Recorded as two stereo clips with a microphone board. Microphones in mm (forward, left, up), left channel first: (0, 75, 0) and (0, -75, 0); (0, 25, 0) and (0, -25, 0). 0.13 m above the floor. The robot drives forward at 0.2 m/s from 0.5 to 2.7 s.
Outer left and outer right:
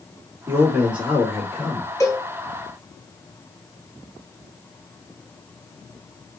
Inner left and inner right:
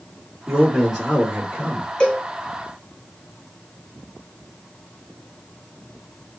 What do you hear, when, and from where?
0.5 s a man speaking: 10° right (ahead or behind), 1.5 m; by 1.9 s 5° right (ahead or behind), 1.6 m
2.0 s a cowbell: 20° left (ahead or behind), 0.9 m